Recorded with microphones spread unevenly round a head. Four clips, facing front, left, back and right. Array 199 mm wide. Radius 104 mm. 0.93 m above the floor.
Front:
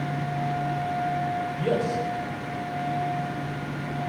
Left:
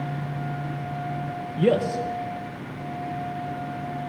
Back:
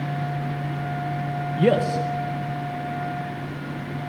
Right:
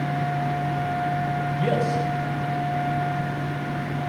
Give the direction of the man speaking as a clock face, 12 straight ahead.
7 o'clock.